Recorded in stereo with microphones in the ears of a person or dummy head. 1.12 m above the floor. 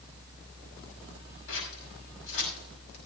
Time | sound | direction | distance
1.5 | scissors | 75° left (ahead or behind) | 6 m